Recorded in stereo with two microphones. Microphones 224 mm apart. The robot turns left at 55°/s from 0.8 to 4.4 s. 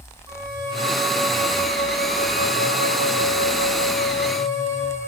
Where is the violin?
160° right, 3.5 m; by 5.0 s straight ahead, 3.5 m.